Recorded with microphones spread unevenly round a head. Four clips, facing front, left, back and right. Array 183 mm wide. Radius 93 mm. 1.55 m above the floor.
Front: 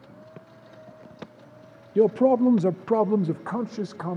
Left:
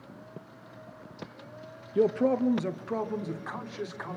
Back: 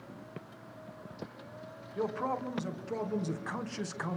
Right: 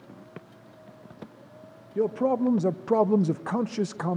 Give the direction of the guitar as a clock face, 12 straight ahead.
No guitar in this recording.